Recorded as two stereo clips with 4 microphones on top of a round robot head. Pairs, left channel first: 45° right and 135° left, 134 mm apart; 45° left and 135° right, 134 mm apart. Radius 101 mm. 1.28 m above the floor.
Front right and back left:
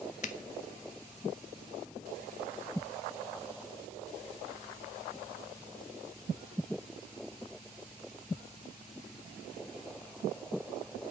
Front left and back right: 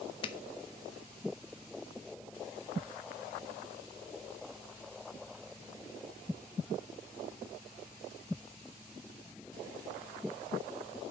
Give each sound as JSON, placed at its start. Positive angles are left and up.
{"t": 0.2, "sound": "a finger snap", "azimuth_deg": -10, "distance_m": 0.9}